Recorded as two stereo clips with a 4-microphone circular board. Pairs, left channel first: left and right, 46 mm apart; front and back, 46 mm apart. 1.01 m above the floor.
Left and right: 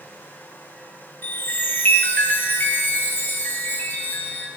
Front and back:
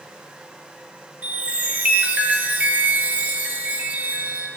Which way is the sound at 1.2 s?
125° left.